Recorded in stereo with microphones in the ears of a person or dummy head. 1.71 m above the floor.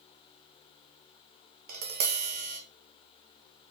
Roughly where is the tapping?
Right.